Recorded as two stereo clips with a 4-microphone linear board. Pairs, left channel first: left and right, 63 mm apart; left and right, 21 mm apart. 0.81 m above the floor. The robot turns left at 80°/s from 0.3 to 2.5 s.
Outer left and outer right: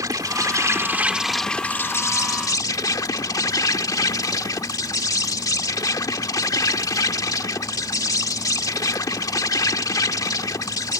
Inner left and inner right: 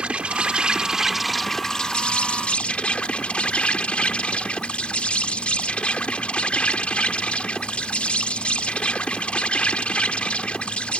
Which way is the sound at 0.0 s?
95° right.